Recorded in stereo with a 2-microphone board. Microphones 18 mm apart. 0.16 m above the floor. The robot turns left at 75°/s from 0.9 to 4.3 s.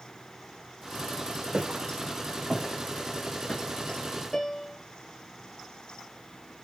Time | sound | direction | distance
1.5 | footsteps | 85° right | 8 m
4.3 | a piano | 20° left (ahead or behind) | 1.5 m